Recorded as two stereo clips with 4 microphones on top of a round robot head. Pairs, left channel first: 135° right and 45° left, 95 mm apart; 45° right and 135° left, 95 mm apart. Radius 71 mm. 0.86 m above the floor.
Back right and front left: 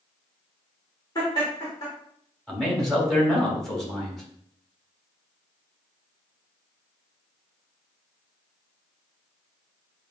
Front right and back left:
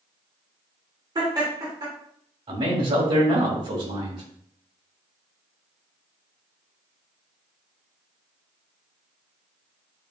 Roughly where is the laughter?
Behind.